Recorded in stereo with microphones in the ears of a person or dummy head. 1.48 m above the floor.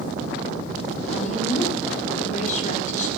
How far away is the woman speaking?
About 3.5 m.